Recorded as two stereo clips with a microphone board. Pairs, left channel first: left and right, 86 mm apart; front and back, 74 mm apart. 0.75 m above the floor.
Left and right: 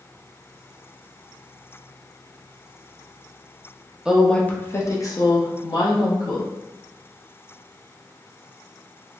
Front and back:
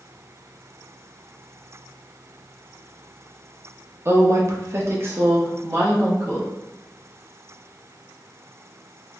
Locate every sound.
4.0 s a woman speaking: 165° right, 0.5 m; by 6.5 s 115° left, 1.6 m